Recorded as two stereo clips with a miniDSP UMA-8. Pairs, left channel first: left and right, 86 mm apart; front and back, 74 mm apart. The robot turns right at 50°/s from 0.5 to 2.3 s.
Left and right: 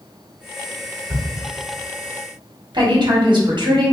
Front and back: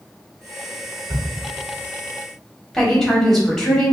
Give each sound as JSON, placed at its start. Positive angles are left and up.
{"t": 1.1, "sound": "a camera shutter", "azimuth_deg": -155, "distance_m": 1.7}
{"t": 2.7, "sound": "a woman speaking", "azimuth_deg": -85, "distance_m": 1.8}